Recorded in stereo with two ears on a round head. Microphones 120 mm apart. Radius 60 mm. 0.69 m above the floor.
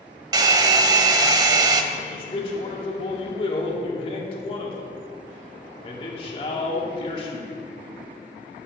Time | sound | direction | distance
0.3 | a hair dryer | 30° right (ahead or behind) | 0.6 m
1.9 | a man speaking | 45° left (ahead or behind) | 1.7 m